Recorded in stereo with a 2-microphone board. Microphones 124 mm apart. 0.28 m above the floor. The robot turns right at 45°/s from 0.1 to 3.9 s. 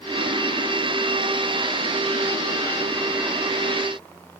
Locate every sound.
Only background noise.